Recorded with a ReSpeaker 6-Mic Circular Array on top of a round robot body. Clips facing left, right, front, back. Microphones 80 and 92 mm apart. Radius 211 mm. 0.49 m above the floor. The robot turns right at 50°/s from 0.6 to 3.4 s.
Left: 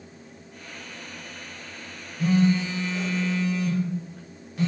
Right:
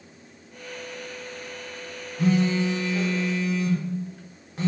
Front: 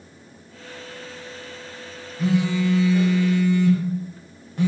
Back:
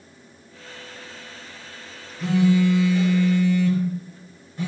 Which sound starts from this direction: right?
A phone buzzing, at 2.2 s.